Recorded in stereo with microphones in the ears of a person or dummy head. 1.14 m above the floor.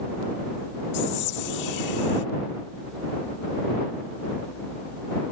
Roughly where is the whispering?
Left.